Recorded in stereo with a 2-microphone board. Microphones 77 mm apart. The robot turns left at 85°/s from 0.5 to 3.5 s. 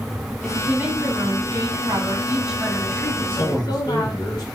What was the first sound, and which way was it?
A woman speaking, straight ahead.